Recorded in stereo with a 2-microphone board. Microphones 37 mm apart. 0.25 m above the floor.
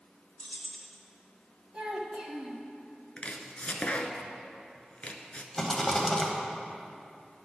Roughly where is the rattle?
Centre.